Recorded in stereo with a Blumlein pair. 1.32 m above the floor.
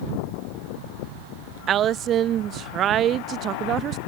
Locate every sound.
1.7 s a woman speaking: 30° right